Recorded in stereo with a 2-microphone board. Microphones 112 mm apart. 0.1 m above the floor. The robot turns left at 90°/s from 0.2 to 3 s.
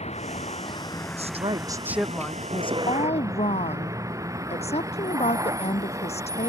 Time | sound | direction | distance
0.0 | a vehicle | 100° left | ?
1.2 | a woman speaking | 100° right | ?